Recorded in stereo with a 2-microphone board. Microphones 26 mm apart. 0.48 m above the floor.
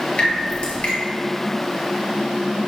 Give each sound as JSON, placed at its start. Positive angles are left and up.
{"t": 0.2, "sound": "dripping", "side_deg": 45, "distance_m": 1.6}